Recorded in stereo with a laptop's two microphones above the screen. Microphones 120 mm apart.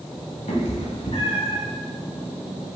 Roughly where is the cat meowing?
Left.